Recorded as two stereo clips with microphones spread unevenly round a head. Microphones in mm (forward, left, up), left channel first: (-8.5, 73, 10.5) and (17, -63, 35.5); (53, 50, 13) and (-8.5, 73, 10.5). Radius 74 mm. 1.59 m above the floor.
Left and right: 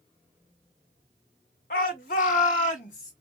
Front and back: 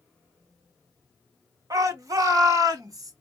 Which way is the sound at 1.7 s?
135° left.